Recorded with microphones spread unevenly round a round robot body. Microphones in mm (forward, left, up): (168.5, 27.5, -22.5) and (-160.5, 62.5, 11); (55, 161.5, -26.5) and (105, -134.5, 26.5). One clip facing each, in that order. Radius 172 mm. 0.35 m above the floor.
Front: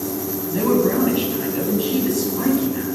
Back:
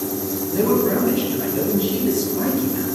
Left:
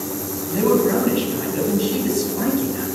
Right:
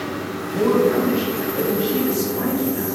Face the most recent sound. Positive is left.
turn(degrees=75)